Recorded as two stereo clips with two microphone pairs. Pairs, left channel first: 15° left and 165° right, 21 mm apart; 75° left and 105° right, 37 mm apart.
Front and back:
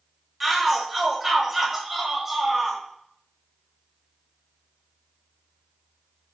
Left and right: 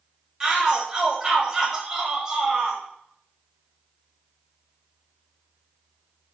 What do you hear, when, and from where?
0.4 s a shout: 105° right, 0.9 m